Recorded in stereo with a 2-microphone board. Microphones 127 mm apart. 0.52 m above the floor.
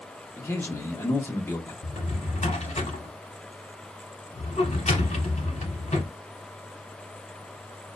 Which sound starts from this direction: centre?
A man speaking, at 0.4 s.